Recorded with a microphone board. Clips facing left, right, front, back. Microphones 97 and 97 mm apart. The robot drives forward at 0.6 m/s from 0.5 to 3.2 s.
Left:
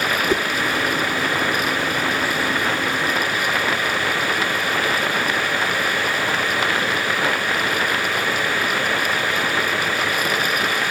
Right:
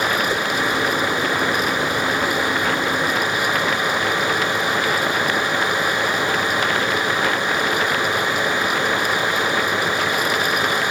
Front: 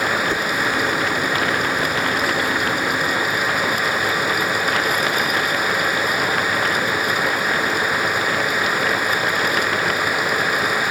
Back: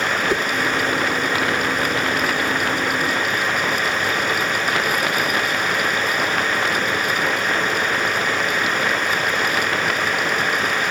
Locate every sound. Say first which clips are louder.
0.3 s a whoosh: left 2 dB, back 1 dB; 105° left, 0.5 m